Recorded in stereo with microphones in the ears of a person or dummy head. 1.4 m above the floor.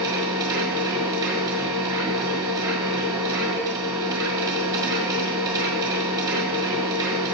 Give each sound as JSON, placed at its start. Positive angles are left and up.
{"t": 0.0, "sound": "a machine running", "side_deg": -20, "distance_m": 2.0}